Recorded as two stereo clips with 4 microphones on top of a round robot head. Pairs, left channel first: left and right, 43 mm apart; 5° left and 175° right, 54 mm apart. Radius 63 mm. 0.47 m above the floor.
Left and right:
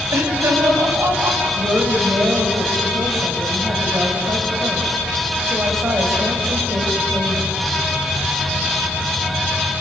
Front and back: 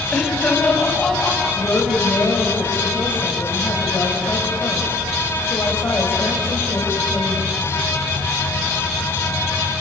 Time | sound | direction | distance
0.1 | laughter | 75° right | 4.5 m
1.6 | a woman speaking | 50° right | 3 m